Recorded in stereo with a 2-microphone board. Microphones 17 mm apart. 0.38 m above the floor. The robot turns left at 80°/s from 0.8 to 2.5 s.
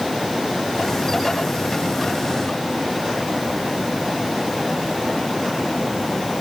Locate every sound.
Only background noise.